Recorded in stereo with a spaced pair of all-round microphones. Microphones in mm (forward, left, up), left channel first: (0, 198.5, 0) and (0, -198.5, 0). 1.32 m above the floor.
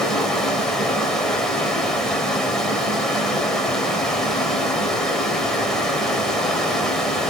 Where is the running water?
Centre (ahead or behind), 4 m.